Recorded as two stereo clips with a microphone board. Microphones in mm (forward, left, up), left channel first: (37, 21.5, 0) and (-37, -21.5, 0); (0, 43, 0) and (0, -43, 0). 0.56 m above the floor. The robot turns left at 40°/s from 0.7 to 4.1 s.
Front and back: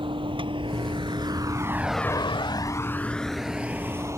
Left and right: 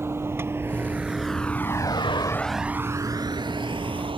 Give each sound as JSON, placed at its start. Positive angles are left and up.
{"t": 0.0, "sound": "a vehicle", "azimuth_deg": -150}